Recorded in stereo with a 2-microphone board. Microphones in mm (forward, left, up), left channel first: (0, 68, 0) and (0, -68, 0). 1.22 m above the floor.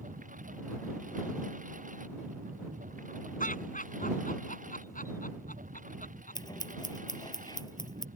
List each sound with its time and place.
0.0 s a lawn mower: 75° right (ahead or behind)
3.4 s laughter: 80° left
6.3 s scissors: 30° left (ahead or behind)